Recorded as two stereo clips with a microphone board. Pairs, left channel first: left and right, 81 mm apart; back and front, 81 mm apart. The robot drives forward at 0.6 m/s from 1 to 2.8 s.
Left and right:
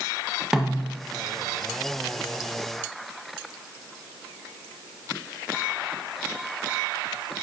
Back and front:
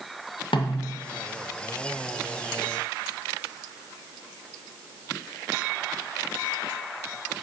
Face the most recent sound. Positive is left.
turn(degrees=180)